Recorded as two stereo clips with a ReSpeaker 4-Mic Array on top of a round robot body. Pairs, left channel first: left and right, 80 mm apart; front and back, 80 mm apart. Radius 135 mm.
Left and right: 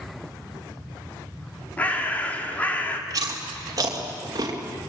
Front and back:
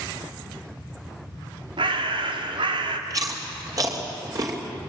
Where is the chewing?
135° right, 3 m.